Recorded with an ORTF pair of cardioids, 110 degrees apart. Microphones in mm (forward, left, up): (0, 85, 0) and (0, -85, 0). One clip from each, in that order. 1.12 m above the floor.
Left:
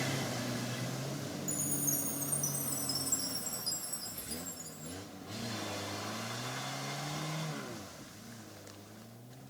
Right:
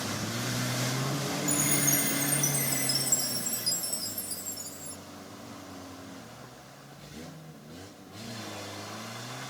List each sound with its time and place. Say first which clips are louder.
1.5 s a chime: right 9 dB; 40° right, 1.6 m